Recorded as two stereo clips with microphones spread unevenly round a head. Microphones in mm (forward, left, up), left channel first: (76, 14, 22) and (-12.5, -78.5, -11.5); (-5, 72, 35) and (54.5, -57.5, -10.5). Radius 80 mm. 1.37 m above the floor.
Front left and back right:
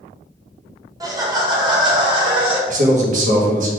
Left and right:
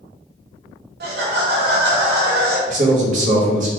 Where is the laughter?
70° right, 1.5 m; by 2.6 s 85° right, 2.5 m.